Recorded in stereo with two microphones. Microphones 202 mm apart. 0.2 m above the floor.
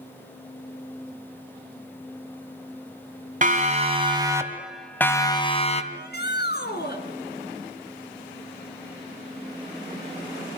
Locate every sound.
3.4 s a siren: 45° right (ahead or behind), 2.5 m; by 5.8 s 35° left (ahead or behind), 2.5 m
5.9 s a shout: 60° left (ahead or behind), 3 m